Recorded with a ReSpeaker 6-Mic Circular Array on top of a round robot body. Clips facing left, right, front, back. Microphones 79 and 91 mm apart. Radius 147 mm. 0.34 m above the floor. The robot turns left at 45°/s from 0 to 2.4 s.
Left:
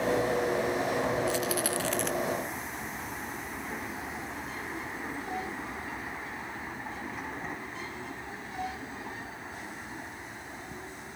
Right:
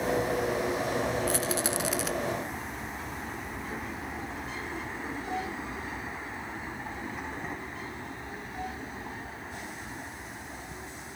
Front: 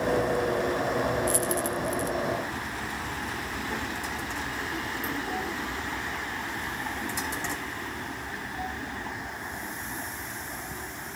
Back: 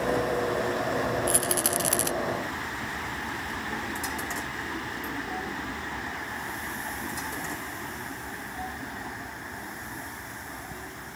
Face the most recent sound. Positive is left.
turn(degrees=170)